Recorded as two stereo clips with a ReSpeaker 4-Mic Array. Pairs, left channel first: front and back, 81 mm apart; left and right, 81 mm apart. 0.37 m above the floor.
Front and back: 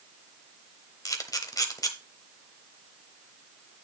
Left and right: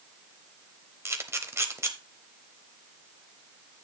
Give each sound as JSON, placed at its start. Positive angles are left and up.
{"t": 1.1, "sound": "a camera shutter", "azimuth_deg": -40, "distance_m": 1.0}